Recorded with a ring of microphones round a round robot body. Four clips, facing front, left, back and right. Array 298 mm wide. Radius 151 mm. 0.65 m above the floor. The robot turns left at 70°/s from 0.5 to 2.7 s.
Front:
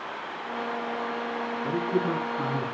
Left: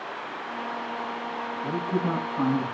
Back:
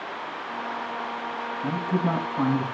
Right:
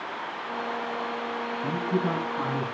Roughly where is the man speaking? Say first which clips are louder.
Even, back 1 dB; behind right.